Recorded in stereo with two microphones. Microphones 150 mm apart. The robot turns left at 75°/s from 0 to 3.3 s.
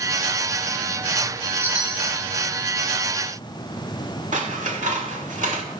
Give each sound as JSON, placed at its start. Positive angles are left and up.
{"t": 1.6, "sound": "a chime", "azimuth_deg": -160, "distance_m": 1.7}
{"t": 4.3, "sound": "scissors", "side_deg": -60, "distance_m": 1.6}